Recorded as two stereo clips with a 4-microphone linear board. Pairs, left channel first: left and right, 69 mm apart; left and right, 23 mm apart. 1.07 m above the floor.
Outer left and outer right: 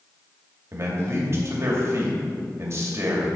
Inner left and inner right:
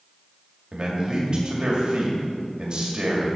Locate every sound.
0.7 s a man speaking: 40° right (ahead or behind), 2.5 m